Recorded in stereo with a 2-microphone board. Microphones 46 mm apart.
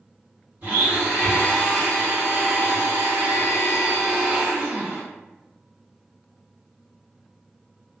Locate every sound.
0.6 s a blender: 40° right (ahead or behind), 1.9 m